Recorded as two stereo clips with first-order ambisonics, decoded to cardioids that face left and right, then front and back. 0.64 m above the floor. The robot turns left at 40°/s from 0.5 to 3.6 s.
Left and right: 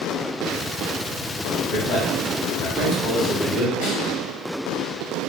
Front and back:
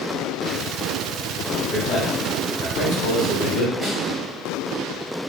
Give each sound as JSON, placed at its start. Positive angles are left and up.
{"t": 1.7, "sound": "a man speaking", "azimuth_deg": 75, "distance_m": 2.5}
{"t": 3.8, "sound": "a snare drum", "azimuth_deg": 90, "distance_m": 1.9}